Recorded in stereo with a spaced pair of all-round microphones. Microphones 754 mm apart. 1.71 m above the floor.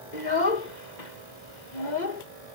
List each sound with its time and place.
0.1 s a child speaking: 65° left (ahead or behind)